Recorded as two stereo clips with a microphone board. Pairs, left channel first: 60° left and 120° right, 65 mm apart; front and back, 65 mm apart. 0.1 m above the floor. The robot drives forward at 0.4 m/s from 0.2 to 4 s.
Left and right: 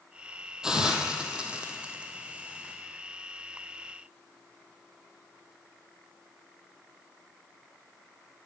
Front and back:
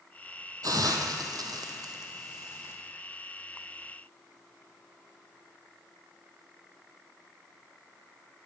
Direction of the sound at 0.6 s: 160° left.